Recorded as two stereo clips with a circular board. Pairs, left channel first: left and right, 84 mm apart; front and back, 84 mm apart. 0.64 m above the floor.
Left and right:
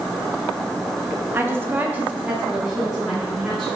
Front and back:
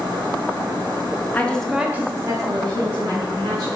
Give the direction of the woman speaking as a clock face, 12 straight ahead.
2 o'clock.